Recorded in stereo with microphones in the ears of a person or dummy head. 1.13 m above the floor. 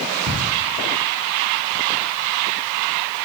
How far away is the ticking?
About 5 m.